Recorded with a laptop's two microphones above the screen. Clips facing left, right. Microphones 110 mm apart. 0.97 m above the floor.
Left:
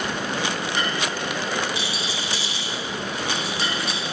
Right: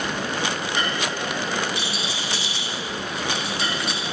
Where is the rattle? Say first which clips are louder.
Even; 60° right (ahead or behind), 1.6 m.